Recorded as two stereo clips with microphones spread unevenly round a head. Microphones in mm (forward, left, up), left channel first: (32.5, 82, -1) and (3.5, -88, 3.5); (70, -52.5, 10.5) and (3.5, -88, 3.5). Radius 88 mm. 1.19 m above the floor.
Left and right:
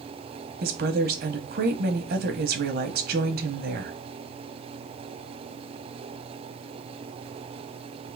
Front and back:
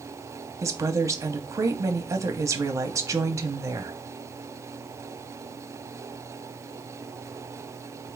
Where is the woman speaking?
120° right, 1.0 m.